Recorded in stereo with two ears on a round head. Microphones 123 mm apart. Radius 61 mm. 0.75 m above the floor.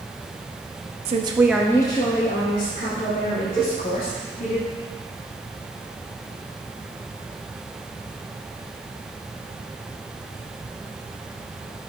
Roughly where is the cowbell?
Centre.